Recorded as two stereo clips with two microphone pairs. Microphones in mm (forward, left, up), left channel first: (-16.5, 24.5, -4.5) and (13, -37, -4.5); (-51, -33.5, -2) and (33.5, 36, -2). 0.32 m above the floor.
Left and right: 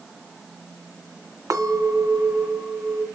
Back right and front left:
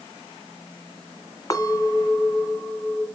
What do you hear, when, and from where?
1.5 s a clink: 85° right, 1.9 m